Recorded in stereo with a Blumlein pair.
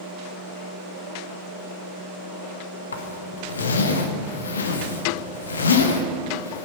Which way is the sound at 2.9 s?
70° left.